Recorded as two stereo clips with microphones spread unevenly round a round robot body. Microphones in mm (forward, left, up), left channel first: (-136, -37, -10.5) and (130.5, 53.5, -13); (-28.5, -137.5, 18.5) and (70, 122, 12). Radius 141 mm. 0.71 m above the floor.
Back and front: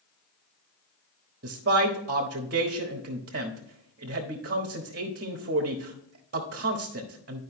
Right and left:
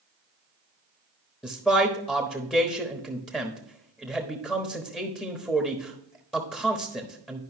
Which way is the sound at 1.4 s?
25° right.